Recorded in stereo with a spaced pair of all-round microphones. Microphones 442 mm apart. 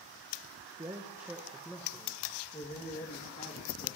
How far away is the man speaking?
About 1.9 m.